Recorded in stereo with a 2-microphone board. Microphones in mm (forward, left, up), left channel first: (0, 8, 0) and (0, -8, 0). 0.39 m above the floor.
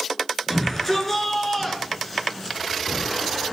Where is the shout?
10° left (ahead or behind), 7.5 m; by 2.6 s 5° left (ahead or behind), 6 m.